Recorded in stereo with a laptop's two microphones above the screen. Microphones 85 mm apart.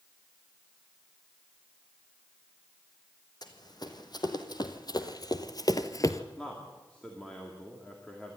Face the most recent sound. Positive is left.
turn(degrees=10)  # may be behind; listen again after turning